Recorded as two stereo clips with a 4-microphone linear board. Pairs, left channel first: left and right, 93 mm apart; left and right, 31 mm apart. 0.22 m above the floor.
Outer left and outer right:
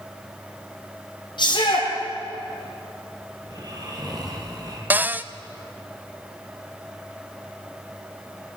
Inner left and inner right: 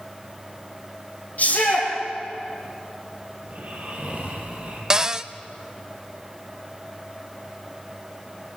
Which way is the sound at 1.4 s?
55° left (ahead or behind).